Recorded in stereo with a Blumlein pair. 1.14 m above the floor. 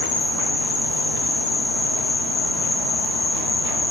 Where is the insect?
55° left, 5 m.